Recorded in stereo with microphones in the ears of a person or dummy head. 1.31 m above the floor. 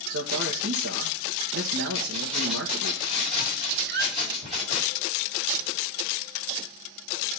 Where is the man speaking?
75° right (ahead or behind), 1.7 m.